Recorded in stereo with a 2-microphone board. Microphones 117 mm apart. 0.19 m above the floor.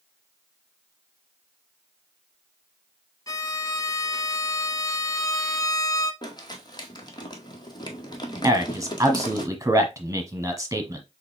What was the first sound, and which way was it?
A violin, 30° left (ahead or behind).